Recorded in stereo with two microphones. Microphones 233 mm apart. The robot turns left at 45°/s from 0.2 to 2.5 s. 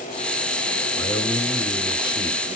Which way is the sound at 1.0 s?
15° left (ahead or behind).